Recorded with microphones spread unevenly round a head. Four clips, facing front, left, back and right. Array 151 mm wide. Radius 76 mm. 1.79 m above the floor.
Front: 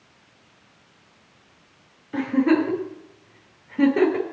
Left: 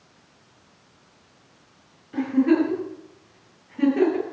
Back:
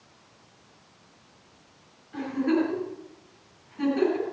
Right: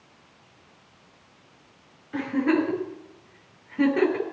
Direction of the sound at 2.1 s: 10° right.